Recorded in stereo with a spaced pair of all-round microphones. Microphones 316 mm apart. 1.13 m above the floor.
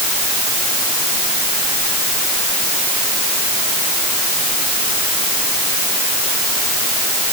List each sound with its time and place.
Only background noise.